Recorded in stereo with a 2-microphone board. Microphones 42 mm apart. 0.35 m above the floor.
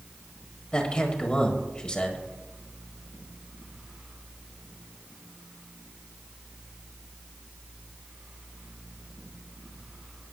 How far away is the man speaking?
About 1.8 m.